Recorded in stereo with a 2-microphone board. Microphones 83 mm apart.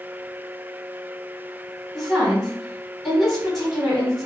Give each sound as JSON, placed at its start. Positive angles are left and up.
{"t": 1.9, "sound": "a woman speaking", "side_deg": 5, "distance_m": 1.8}